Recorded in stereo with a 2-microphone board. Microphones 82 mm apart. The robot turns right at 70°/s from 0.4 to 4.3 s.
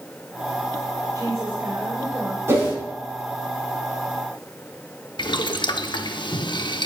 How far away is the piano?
No piano in this recording.